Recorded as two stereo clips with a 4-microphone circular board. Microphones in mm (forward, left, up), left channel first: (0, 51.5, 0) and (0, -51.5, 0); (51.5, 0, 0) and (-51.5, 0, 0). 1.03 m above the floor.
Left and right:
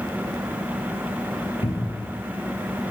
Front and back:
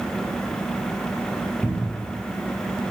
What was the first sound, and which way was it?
A cupboard door, 80° left.